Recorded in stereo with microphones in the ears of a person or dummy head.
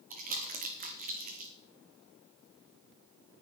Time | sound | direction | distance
0.1 | crumpling | 40° right (ahead or behind) | 2 m